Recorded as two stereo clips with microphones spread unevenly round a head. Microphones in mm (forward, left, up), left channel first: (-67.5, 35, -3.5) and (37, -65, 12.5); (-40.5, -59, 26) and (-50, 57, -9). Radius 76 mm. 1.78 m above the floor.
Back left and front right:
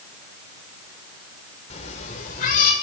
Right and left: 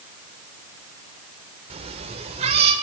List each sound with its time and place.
1.7 s a cat meowing: 115° left, 1.7 m; by 2.7 s 125° left, 2 m